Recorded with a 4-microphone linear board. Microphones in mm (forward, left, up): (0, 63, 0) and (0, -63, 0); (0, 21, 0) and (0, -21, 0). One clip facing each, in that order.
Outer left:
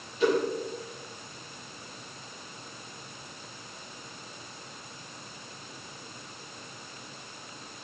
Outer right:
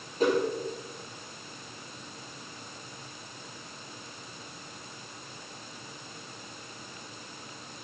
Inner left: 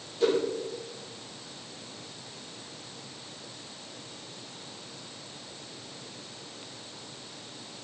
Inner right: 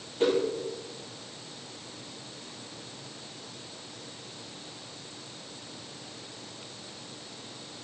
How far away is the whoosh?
About 4 m.